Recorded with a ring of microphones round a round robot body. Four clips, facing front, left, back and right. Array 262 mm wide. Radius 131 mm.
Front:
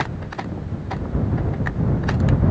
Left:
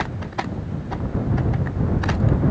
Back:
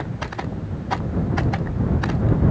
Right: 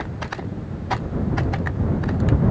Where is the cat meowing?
No cat meowing in this recording.